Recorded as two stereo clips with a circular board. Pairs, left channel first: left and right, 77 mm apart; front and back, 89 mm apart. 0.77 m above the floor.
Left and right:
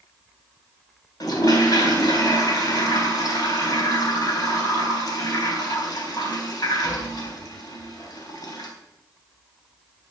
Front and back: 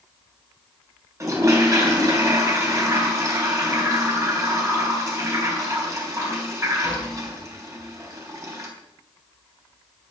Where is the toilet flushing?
125° left, 3.5 m.